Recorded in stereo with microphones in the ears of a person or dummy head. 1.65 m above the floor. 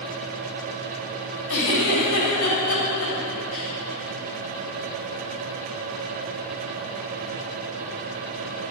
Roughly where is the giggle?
Left.